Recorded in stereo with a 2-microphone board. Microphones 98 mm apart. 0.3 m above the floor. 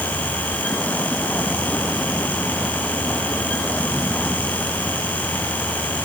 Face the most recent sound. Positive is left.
turn(degrees=10)  # may be behind; listen again after turning